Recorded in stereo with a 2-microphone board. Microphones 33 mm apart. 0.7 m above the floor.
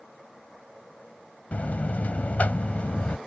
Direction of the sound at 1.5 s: 45° left (ahead or behind).